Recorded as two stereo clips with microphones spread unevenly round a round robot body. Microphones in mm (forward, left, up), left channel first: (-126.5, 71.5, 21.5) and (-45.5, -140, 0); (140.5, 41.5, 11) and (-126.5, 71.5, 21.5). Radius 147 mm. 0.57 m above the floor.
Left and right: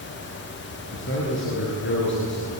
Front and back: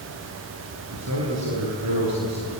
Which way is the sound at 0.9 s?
145° left.